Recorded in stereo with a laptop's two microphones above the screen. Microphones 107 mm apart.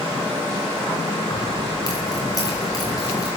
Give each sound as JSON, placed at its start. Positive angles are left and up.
{"t": 1.3, "sound": "keys jangling", "side_deg": 30, "distance_m": 9.5}